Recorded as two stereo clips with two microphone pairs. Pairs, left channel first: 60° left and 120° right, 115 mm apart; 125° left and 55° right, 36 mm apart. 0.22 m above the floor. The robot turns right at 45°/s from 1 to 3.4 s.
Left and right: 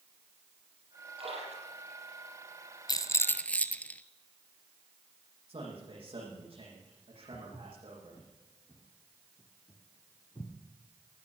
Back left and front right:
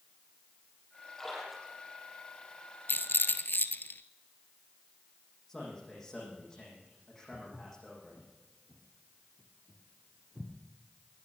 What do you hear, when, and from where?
1.2 s a splash: 155° right, 6 m; by 2.2 s 110° right, 6 m
2.9 s a rattle: 115° left, 0.7 m; by 4.0 s 140° left, 0.7 m
5.5 s a man speaking: 155° right, 8.5 m
7.3 s footsteps: 20° right, 3.5 m; by 10.5 s 10° left, 2.5 m